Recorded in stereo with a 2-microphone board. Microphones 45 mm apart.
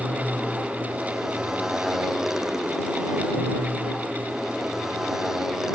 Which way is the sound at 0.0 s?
10° right (ahead or behind).